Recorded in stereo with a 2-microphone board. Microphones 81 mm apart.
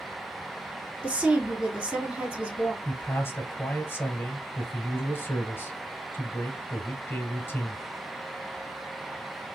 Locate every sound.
1.0 s a woman speaking: 15° right (ahead or behind), 2.5 m
2.9 s a man speaking: 30° left (ahead or behind), 1.2 m